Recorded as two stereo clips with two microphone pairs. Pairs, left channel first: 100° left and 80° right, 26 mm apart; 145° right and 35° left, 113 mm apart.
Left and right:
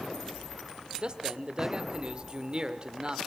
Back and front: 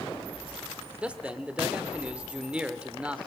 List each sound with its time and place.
1.0 s a man speaking: 40° right, 1.6 m